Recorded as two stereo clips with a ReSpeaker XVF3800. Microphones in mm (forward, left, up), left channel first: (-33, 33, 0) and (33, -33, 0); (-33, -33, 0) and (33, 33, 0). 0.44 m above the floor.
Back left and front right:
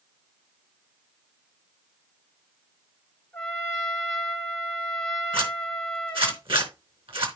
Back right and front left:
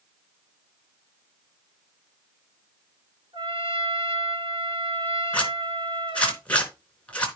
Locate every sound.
3.3 s a trumpet: 55° left, 3 m
5.3 s a zipper: 60° right, 3.5 m